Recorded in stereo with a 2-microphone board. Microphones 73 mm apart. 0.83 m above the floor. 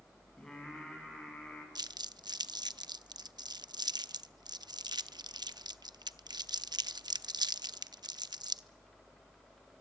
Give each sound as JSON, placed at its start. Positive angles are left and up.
{"t": 0.4, "sound": "singing", "side_deg": 10, "distance_m": 6.5}
{"t": 1.8, "sound": "crumpling", "side_deg": -75, "distance_m": 0.5}